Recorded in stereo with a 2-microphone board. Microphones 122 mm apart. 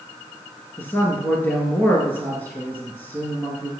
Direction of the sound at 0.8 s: 15° left (ahead or behind).